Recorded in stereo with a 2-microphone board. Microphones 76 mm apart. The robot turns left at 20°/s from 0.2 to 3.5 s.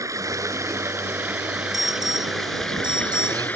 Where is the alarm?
55° right; by 3.4 s 90° right.